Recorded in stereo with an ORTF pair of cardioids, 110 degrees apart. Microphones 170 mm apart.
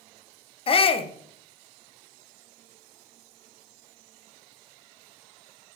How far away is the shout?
About 0.8 m.